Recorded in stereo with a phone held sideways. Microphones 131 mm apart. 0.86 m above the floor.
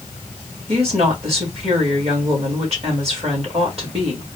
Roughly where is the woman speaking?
Right.